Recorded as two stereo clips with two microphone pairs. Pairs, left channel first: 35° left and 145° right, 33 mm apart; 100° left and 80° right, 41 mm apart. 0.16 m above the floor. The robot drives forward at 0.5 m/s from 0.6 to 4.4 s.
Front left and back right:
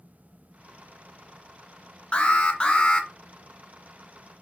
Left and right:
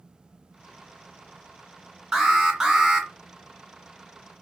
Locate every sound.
2.1 s an alarm: 10° right, 1.7 m; by 3.1 s 15° right, 1.4 m